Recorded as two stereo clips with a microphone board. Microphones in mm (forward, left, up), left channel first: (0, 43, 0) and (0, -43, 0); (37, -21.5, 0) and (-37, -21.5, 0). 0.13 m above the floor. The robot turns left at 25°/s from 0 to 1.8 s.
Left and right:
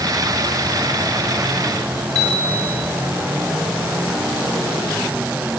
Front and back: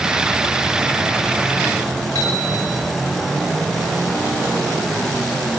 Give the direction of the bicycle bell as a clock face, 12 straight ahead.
1 o'clock.